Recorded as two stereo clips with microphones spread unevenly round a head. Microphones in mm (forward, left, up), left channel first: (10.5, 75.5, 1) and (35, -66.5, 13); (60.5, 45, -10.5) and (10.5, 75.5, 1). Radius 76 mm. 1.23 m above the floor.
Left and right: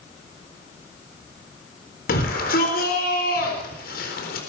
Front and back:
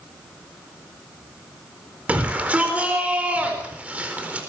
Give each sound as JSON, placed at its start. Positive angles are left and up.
{"t": 2.1, "sound": "a shout", "azimuth_deg": 85, "distance_m": 4.0}